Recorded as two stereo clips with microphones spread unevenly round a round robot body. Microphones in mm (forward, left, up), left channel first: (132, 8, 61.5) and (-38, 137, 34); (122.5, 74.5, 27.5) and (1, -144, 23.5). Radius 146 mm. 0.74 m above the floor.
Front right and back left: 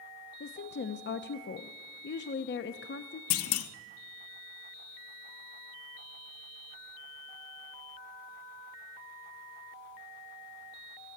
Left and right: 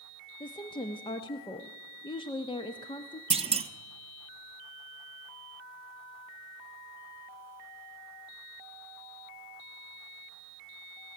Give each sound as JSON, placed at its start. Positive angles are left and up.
{"t": 0.4, "sound": "a woman speaking", "azimuth_deg": -10, "distance_m": 0.9}
{"t": 3.3, "sound": "a clunk", "azimuth_deg": -50, "distance_m": 1.0}